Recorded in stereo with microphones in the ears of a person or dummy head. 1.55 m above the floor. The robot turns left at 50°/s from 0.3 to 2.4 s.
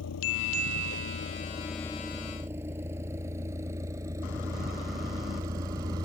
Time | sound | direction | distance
0.0 | a vehicle | 85° left | ?